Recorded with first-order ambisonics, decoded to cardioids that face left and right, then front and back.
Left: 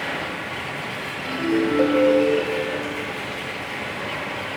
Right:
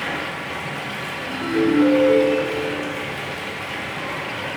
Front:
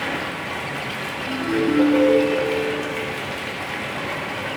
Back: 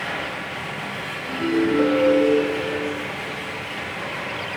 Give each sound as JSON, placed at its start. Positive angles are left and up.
{"t": 0.0, "sound": "running water", "azimuth_deg": -15, "distance_m": 1.4}
{"t": 1.2, "sound": "a ringtone", "azimuth_deg": 90, "distance_m": 1.8}